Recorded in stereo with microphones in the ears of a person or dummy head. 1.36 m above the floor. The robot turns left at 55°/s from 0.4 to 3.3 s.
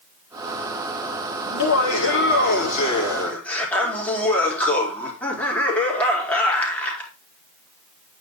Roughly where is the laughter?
Left.